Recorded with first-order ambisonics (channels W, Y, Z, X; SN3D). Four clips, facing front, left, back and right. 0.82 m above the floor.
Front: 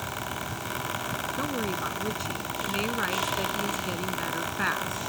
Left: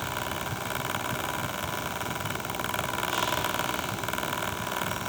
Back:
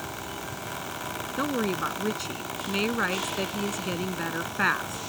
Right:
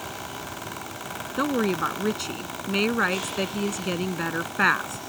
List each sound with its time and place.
1.4 s a woman speaking: 105° right